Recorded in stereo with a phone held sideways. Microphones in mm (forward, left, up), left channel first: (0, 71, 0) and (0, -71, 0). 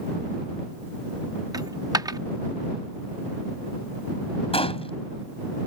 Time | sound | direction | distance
1.5 | a dropped coin | 25° right (ahead or behind) | ?
4.5 | a gunshot | 40° left (ahead or behind) | ?